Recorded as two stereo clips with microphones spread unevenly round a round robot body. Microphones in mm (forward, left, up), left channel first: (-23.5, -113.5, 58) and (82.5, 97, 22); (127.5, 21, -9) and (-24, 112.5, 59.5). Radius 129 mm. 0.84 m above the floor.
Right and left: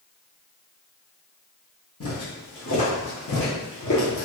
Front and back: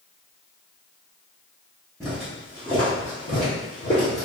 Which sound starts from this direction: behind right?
Footsteps, at 2.0 s.